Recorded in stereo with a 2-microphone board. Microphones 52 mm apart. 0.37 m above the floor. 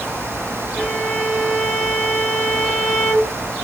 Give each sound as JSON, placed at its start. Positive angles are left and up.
{"t": 0.8, "sound": "a violin", "side_deg": 30, "distance_m": 8.0}